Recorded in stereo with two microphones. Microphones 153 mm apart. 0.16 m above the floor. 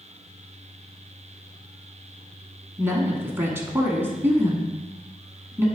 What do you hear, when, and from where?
2.8 s a woman speaking: 15° right (ahead or behind), 1.3 m